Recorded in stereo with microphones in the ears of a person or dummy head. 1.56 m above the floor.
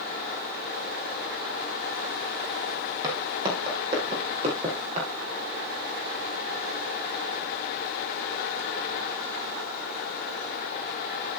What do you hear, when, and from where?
3.0 s footsteps: 15° right (ahead or behind), 4.5 m; by 5.1 s 35° right (ahead or behind), 5.5 m